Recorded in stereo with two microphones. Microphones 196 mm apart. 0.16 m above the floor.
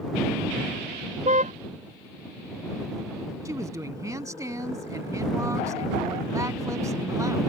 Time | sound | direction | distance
1.2 | a car horn | 40° right (ahead or behind) | ?
3.5 | a woman speaking | 15° right (ahead or behind) | ?